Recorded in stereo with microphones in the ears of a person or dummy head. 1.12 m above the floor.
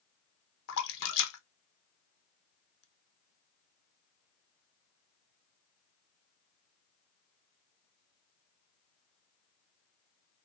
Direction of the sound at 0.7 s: 75° left (ahead or behind).